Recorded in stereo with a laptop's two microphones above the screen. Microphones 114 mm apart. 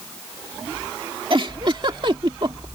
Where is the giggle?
45° right (ahead or behind).